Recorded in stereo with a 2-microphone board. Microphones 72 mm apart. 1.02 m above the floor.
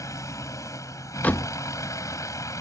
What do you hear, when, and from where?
0.0 s a vehicle: 50° left (ahead or behind)
1.2 s a door slam: 20° left (ahead or behind)